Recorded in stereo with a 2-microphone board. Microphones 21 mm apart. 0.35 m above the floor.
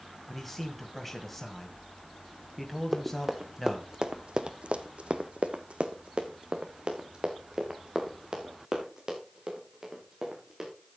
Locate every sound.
0.3 s a man speaking: centre (ahead or behind), 1.8 m
2.9 s running footsteps: 20° right (ahead or behind), 2 m; by 10.7 s 25° right (ahead or behind), 6 m